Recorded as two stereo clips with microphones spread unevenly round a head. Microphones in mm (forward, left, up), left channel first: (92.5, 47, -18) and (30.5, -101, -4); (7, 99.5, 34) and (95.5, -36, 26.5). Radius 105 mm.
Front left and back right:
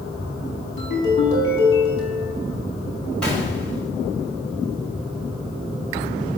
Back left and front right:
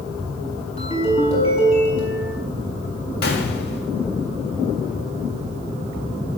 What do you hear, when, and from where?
0.8 s a ringtone: 70° left, 6 m
3.2 s a gunshot: 155° left, 2 m